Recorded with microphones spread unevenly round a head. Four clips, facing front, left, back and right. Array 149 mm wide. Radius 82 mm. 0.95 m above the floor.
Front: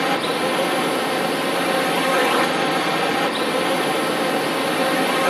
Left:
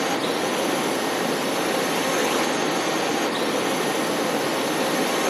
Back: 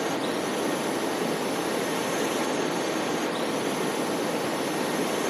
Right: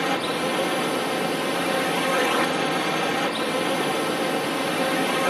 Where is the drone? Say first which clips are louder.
Left 1 dB, front 7 dB; 15° right.